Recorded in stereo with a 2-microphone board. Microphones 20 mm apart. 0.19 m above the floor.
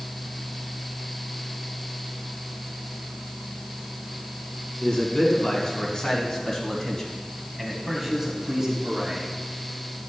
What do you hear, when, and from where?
4.8 s a man speaking: 50° left (ahead or behind), 2 m; by 9.3 s 25° right (ahead or behind), 1.7 m